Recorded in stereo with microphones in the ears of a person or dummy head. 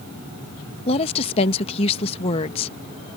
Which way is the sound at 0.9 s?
40° left (ahead or behind).